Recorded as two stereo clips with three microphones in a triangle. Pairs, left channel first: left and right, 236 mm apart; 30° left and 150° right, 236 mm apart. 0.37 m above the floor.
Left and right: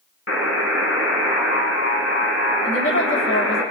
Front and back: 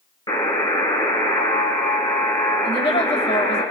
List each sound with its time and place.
0.3 s a buzzer: 105° left, 1.3 m
2.6 s a woman speaking: 90° left, 2 m